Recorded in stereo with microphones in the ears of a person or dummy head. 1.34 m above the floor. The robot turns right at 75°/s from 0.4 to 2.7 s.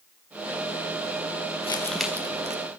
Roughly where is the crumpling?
Behind left.